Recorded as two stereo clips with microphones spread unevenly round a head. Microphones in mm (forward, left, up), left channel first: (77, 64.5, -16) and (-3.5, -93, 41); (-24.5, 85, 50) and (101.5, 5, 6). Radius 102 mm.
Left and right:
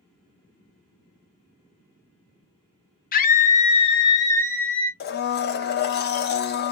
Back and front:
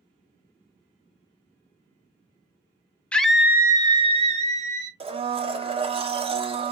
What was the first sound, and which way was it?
A scream, 55° left.